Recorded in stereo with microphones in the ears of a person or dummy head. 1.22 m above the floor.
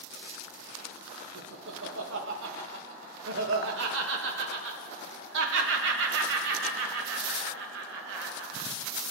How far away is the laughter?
About 1.5 m.